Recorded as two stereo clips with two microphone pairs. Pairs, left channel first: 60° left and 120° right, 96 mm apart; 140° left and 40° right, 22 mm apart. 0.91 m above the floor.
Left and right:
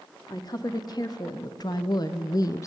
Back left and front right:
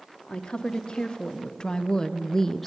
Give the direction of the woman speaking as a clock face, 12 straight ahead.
9 o'clock.